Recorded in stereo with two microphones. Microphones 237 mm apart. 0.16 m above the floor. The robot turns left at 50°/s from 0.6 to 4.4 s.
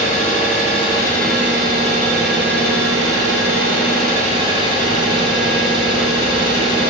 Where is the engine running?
35° left, 0.8 m; by 6.9 s 155° right, 0.8 m.